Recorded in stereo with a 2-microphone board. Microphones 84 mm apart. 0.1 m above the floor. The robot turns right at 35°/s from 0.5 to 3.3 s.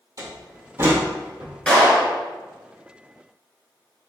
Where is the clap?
15° left (ahead or behind), 1.3 m.